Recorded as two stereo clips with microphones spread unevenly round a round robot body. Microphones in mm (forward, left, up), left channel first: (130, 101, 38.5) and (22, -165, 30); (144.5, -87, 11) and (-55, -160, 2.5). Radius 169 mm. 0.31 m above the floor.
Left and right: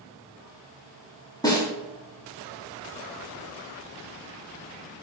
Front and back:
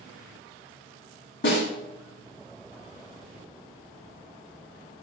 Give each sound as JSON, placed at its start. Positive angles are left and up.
{"t": 1.4, "sound": "a snare drum", "azimuth_deg": -10, "distance_m": 2.5}